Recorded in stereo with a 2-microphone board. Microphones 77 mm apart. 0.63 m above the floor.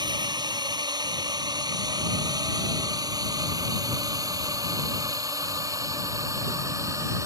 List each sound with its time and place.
0.0 s a drone: 70° right (ahead or behind); by 7.3 s 40° right (ahead or behind)